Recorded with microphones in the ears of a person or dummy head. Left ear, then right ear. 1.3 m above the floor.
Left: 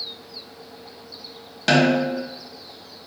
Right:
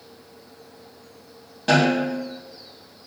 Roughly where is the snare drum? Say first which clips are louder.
Left 1 dB; left.